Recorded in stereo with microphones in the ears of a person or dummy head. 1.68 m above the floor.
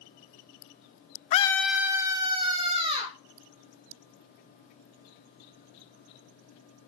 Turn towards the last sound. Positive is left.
turn(degrees=-30)  # may be behind; listen again after turning